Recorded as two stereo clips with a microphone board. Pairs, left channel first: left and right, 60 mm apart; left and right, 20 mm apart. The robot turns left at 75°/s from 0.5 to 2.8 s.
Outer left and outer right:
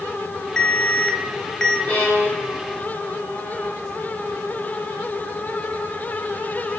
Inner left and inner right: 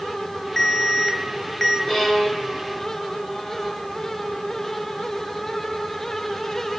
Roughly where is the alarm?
Centre.